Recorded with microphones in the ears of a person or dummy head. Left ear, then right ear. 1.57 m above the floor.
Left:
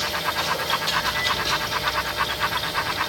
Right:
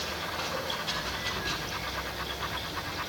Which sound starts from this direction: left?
Running water, at 0.0 s.